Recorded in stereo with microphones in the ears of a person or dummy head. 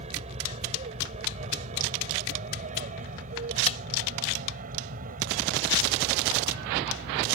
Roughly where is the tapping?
Left.